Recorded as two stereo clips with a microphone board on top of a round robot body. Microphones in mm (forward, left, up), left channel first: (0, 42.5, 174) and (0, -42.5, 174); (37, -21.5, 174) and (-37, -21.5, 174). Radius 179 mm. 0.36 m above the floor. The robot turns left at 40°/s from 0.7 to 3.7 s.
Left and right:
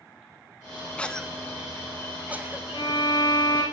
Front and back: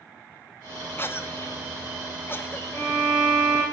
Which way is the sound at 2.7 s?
55° left.